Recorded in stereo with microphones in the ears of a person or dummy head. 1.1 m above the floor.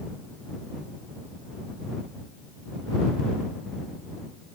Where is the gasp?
I don't hear a gasp.